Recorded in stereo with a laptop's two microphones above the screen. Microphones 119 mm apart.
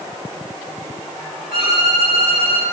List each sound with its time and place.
1.5 s a violin: 60° right (ahead or behind), 9.5 m